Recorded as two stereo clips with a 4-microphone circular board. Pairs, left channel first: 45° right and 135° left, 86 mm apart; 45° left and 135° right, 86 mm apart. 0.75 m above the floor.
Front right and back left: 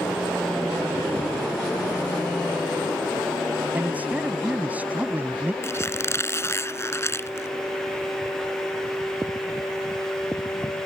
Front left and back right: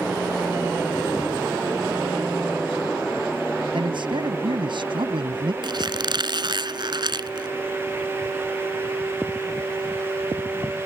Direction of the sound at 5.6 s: 105° right.